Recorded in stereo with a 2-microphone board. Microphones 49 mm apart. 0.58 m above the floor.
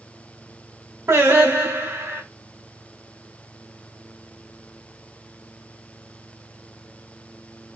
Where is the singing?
70° right (ahead or behind), 2.5 m.